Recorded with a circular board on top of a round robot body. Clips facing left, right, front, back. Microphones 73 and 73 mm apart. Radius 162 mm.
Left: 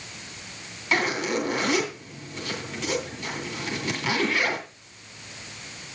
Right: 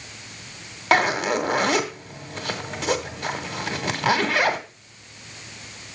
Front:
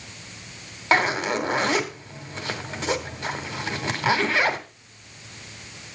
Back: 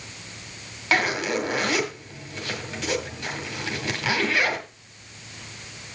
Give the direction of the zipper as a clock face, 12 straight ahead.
2 o'clock.